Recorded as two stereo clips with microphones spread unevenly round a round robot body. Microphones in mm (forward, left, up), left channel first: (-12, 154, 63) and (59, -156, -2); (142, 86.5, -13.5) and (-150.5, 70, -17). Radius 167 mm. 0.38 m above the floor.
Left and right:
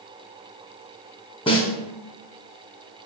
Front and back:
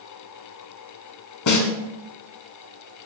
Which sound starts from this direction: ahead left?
A snare drum, at 1.5 s.